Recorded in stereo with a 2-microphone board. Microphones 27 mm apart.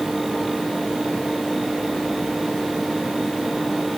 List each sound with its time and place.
Only background noise.